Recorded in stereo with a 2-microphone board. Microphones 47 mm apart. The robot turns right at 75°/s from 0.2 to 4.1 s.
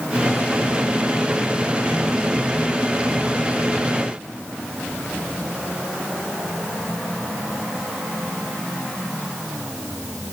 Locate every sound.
Only background noise.